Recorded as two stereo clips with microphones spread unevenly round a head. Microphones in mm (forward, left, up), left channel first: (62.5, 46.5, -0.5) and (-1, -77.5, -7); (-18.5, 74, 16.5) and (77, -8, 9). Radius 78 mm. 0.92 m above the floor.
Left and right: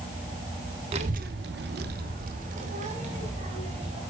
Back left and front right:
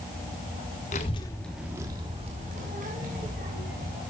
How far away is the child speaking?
About 1.3 m.